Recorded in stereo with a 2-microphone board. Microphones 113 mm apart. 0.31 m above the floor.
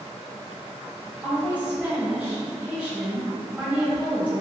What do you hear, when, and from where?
1.2 s a woman speaking: 10° right (ahead or behind), 1.1 m